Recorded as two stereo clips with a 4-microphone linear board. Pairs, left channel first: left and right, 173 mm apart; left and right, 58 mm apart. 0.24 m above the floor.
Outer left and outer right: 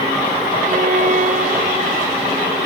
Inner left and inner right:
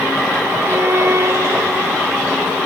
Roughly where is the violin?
Right.